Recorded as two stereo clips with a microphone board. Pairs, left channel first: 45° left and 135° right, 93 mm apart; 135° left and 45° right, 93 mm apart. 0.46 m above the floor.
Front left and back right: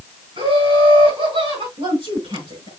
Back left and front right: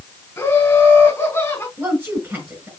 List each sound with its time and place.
0.4 s laughter: 160° right, 4.5 m
1.8 s a woman speaking: 110° right, 5 m